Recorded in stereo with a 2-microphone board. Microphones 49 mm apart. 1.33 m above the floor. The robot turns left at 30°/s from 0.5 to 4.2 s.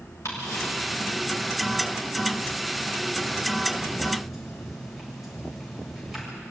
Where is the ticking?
80° left, 7 m; by 6.2 s 10° right (ahead or behind), 7 m.